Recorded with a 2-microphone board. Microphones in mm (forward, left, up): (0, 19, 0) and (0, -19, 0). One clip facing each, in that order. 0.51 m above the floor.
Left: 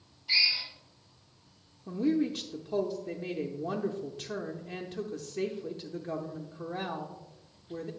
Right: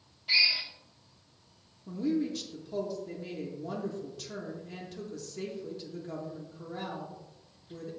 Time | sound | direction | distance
0.3 | a drill | 60° right (ahead or behind) | 2 m
1.9 | a woman speaking | 25° left (ahead or behind) | 0.7 m